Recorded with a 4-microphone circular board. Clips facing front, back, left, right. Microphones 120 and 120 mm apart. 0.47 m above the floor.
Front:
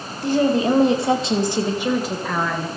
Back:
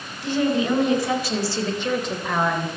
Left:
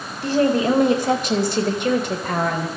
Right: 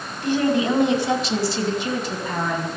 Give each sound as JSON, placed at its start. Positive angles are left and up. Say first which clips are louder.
{"t": 0.2, "sound": "a woman speaking", "louder": "front 4 dB, left 2 dB", "azimuth_deg": 40, "distance_m": 3.0}